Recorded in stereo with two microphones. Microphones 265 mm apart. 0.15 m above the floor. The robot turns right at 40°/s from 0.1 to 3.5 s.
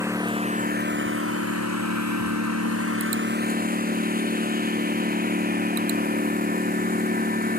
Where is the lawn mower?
170° right; by 7.6 s 35° right.